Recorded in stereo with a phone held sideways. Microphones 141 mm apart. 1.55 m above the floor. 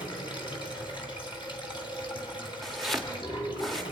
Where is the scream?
No scream in this recording.